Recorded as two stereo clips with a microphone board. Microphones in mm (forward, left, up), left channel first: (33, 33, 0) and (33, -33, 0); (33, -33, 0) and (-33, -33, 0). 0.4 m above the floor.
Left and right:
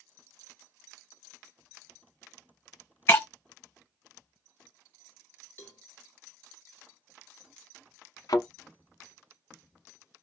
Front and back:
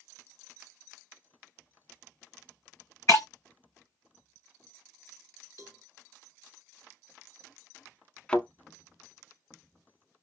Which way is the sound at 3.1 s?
35° left.